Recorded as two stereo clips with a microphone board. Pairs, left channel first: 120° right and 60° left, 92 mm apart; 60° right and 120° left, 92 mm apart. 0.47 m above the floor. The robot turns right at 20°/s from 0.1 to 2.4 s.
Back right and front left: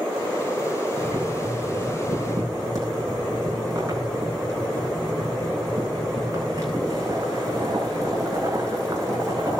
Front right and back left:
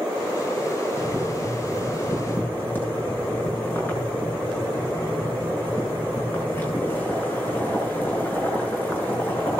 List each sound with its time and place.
1.0 s boiling: 20° right, 8 m; by 9.6 s 10° left, 8 m